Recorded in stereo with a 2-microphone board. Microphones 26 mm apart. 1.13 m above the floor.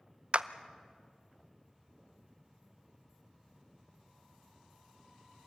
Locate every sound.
0.3 s a clap: 50° right (ahead or behind), 0.7 m